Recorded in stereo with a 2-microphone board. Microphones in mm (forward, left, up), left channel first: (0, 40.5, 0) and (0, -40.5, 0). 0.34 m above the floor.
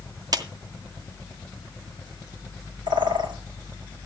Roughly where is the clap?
Right.